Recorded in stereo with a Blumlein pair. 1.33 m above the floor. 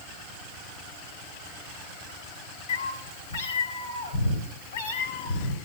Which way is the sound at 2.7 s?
60° left.